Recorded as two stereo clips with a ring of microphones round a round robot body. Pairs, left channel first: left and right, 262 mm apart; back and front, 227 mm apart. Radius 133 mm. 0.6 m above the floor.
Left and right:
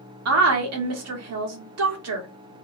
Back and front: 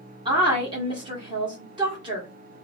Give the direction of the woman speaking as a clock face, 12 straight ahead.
2 o'clock.